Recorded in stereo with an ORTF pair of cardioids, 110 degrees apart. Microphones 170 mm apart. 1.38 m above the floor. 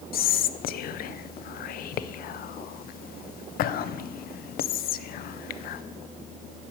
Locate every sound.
0.1 s whispering: 60° left, 0.6 m